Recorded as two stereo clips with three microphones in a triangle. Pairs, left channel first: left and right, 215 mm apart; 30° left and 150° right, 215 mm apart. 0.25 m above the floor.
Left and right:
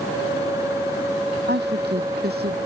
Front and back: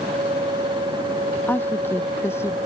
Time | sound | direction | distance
1.5 | a woman speaking | 50° right | ?